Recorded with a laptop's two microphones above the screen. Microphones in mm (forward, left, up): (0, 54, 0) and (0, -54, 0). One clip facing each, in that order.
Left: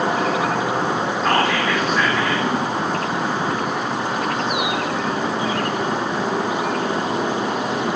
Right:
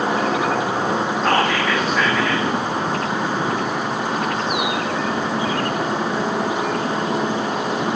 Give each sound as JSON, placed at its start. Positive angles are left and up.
{"t": 1.2, "sound": "whispering", "side_deg": 0, "distance_m": 2.0}